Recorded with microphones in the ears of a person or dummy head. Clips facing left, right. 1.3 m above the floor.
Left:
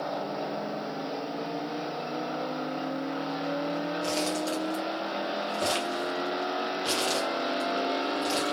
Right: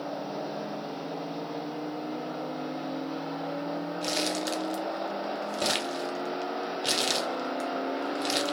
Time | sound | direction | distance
4.0 | crumpling | 20° right (ahead or behind) | 0.7 m